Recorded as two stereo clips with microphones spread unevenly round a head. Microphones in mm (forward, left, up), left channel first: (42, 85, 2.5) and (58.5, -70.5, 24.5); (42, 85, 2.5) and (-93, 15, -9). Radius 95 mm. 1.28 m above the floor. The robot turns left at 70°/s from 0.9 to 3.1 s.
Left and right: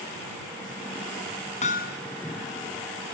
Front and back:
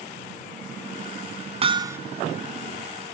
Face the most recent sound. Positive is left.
turn(degrees=55)